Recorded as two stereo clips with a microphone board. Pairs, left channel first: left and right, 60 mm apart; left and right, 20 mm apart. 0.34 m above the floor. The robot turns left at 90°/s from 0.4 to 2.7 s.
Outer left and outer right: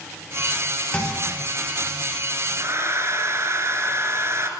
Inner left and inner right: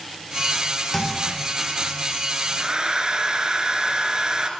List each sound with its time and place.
0.9 s a thud: 20° left (ahead or behind), 8 m; by 1.5 s 30° right (ahead or behind), 8 m
2.6 s a hair dryer: 60° right (ahead or behind), 2.5 m; by 4.5 s 45° right (ahead or behind), 2.5 m